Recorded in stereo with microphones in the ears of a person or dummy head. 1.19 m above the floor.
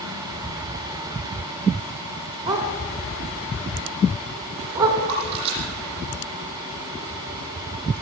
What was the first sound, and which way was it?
A dog barking, 25° right (ahead or behind).